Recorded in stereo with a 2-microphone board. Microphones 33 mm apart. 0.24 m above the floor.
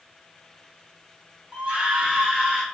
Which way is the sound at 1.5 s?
35° right (ahead or behind).